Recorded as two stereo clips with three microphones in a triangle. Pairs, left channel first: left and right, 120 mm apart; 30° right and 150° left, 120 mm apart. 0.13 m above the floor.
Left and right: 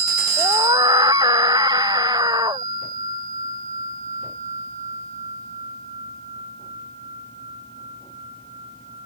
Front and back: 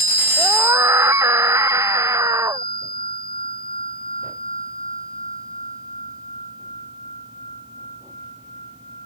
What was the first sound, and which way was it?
A scream, 140° right.